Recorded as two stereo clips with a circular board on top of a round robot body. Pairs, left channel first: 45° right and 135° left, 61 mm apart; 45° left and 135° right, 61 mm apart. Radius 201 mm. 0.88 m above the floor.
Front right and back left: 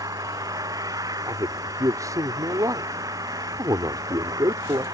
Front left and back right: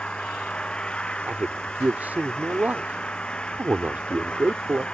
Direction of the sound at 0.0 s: 120° left.